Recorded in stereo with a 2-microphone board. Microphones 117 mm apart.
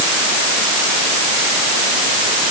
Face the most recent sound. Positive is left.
No sound to turn to.